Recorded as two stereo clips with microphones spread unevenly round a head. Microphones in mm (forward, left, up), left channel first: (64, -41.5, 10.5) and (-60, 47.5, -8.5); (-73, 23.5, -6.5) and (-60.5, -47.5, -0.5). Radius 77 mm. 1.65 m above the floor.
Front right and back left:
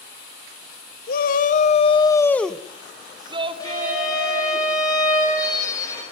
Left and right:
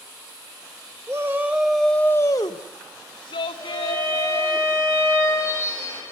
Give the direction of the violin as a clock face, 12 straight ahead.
11 o'clock.